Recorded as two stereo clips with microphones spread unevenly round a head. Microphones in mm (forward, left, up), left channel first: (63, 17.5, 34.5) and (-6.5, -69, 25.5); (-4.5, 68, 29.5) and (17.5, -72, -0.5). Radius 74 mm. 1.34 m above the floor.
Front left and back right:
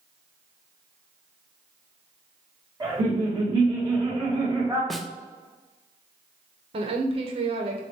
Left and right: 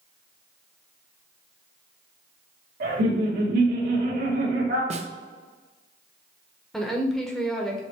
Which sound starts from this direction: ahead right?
A snare drum, at 4.9 s.